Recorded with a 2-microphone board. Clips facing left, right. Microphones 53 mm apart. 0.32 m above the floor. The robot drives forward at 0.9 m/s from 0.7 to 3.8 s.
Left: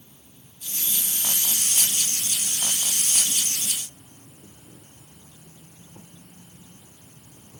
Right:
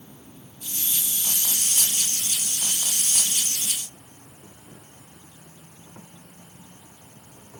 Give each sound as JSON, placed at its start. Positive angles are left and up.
{"t": 0.0, "sound": "an insect", "side_deg": -70}